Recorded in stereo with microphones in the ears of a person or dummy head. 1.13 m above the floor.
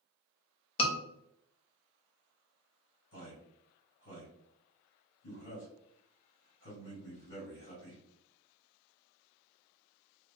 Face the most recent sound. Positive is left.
turn(degrees=70)  # may be behind; listen again after turning